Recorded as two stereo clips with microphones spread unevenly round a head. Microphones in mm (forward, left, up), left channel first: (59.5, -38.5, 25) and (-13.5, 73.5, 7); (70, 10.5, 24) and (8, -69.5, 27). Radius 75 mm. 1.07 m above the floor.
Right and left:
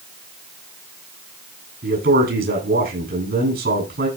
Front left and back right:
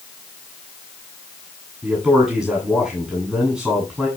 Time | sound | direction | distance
1.8 | a man speaking | 145° left | 7.5 m